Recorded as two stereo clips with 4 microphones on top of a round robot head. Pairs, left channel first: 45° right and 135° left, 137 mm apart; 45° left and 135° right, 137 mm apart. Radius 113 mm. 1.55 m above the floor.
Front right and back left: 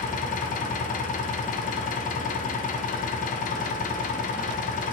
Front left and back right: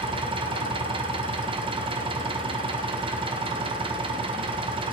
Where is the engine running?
80° right, 1.7 m.